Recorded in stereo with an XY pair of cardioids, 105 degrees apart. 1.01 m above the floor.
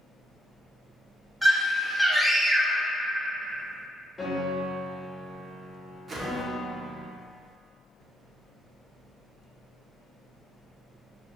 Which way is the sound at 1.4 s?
5° left.